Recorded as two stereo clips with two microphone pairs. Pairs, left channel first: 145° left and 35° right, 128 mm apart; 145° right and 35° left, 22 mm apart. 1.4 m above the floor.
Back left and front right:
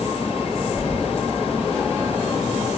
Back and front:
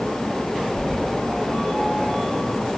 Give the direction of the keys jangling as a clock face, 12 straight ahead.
7 o'clock.